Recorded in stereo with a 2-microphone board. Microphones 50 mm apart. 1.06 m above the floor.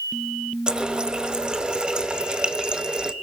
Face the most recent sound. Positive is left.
turn(degrees=-15)  # may be behind; listen again after turning